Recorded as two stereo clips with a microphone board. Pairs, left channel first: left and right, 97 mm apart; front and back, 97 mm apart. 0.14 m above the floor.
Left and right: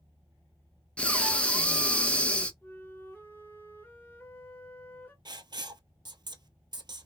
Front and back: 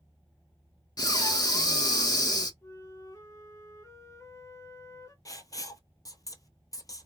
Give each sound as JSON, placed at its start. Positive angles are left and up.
{"t": 1.0, "sound": "breathing", "azimuth_deg": 20, "distance_m": 0.5}
{"t": 2.6, "sound": "a flute", "azimuth_deg": 35, "distance_m": 0.8}
{"t": 5.2, "sound": "writing", "azimuth_deg": -50, "distance_m": 0.6}